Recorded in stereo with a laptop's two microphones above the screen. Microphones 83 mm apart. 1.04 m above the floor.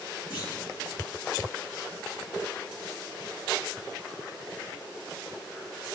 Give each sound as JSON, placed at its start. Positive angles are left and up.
{"t": 0.3, "sound": "a clunk", "side_deg": 70, "distance_m": 2.0}